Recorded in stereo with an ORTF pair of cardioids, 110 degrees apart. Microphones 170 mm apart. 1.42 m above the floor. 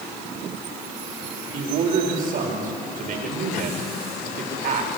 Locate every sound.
1.5 s a man speaking: 55° right, 6 m